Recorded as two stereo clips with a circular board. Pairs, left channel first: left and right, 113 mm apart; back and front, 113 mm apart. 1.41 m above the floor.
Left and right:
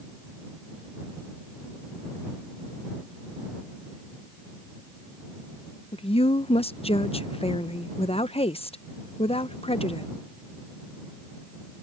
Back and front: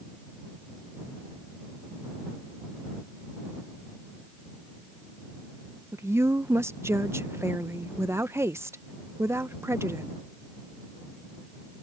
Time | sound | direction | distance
5.9 | a woman speaking | 65° left | ?